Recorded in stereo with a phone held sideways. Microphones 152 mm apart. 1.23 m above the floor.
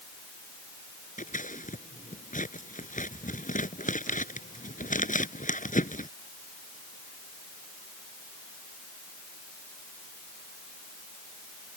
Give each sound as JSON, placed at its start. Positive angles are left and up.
{"t": 1.2, "sound": "scissors", "side_deg": 60}